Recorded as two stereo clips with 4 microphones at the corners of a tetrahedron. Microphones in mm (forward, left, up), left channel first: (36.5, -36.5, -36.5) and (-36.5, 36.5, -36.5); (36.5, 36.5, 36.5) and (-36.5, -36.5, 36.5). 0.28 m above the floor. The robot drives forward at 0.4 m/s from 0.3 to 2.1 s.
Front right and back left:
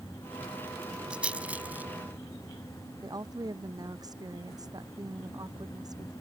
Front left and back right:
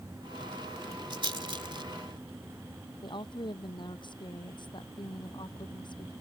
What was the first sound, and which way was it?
A rattle, 150° right.